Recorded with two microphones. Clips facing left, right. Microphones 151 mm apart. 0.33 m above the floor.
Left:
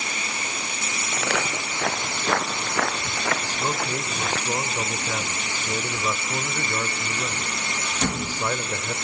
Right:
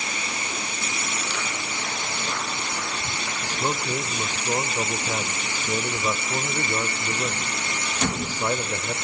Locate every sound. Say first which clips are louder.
1.1 s footsteps: left 5 dB; 70° left (ahead or behind), 3.5 m; by 4.4 s 80° left, 1.6 m
3.4 s a man speaking: even; 10° right (ahead or behind), 1.0 m